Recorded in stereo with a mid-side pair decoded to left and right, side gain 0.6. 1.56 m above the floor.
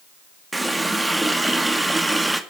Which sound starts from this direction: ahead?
A running tap, at 0.5 s.